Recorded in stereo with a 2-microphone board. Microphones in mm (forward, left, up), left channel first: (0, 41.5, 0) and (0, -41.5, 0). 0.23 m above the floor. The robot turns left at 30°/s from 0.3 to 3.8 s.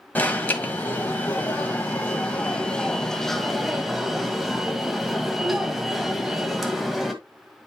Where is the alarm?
20° left (ahead or behind), 1.4 m; by 7.1 s centre (ahead or behind), 1.4 m.